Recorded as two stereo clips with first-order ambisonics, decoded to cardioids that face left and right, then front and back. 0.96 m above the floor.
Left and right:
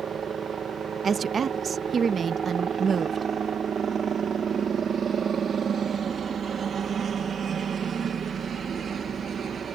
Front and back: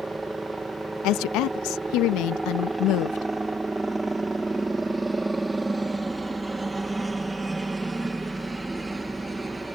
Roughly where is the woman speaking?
Ahead.